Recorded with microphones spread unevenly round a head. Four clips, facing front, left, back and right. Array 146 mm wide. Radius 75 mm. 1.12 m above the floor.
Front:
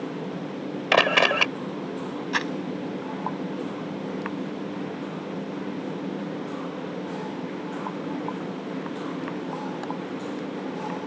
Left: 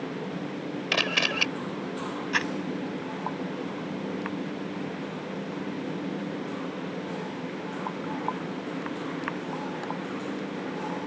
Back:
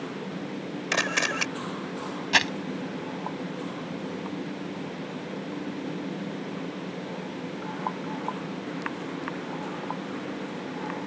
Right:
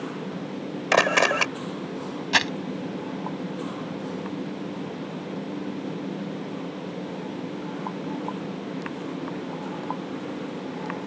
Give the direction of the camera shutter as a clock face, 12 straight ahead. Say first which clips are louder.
Right 10 dB, front 9 dB; 2 o'clock.